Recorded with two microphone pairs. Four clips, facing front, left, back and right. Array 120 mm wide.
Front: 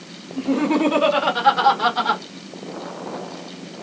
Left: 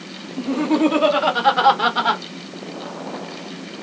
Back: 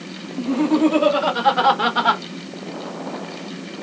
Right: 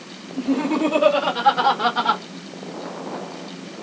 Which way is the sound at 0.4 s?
30° left.